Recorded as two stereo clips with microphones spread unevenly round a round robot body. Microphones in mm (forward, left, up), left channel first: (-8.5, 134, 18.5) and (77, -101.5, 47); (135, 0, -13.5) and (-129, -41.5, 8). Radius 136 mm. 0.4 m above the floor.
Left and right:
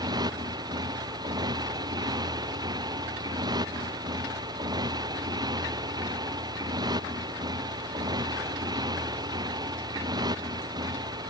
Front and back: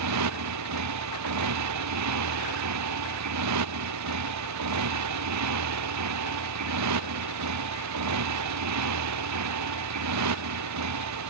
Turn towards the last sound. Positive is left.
turn(degrees=-145)